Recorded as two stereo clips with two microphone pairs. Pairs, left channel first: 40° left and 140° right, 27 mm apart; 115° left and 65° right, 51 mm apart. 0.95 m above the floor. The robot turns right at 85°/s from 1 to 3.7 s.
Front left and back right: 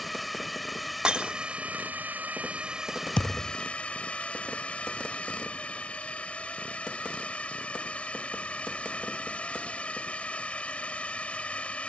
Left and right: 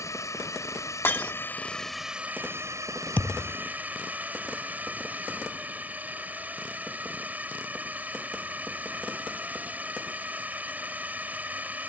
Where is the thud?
70° left; by 3.6 s 105° left.